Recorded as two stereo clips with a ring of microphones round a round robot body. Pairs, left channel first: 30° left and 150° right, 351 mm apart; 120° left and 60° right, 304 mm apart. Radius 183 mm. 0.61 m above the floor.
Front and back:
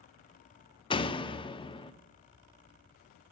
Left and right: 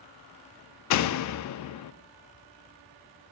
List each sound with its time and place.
0.9 s a door slam: 105° left, 0.5 m